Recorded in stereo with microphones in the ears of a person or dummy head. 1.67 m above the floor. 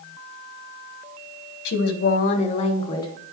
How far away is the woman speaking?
About 1.1 m.